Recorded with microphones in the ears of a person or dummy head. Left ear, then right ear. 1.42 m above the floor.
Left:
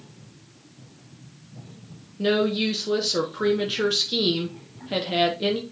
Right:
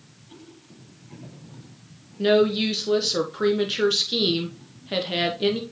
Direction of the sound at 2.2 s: 5° right (ahead or behind).